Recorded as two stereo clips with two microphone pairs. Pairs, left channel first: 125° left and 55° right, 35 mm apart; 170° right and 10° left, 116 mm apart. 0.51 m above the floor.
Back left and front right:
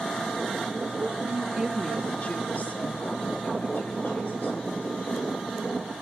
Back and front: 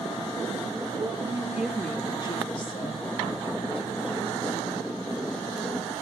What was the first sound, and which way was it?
A woman speaking, 30° right.